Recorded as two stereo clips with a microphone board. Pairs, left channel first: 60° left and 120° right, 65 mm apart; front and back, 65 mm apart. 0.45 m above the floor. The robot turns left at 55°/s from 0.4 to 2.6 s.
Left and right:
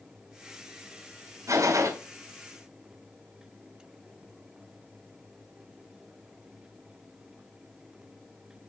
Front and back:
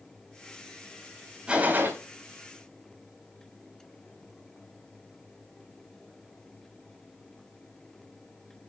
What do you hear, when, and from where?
1.5 s a gunshot: 110° right, 3.5 m; by 1.9 s 135° right, 3.5 m